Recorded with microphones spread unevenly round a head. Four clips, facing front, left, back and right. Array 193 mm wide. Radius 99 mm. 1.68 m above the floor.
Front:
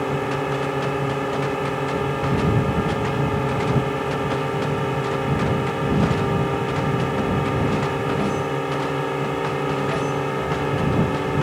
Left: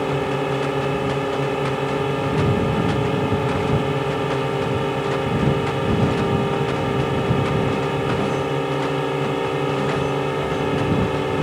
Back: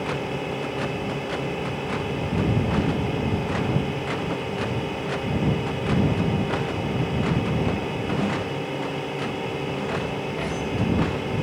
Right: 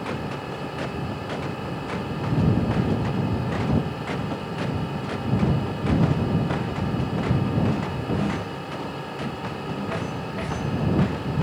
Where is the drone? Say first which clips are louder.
Left 9 dB, front 5 dB; 75° left.